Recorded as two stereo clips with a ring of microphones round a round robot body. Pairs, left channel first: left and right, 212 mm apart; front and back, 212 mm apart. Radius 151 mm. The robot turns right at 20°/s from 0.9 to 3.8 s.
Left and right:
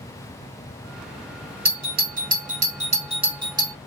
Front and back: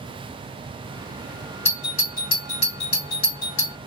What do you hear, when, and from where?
1.6 s a doorbell: 60° right, 1.9 m; by 3.8 s 20° right, 1.9 m